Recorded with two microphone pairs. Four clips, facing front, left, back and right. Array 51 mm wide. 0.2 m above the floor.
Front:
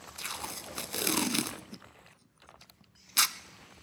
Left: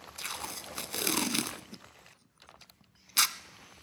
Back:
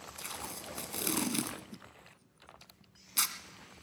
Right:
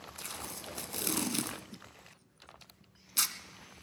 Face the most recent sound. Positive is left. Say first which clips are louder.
# left 5 dB, front 5 dB
turn(degrees=40)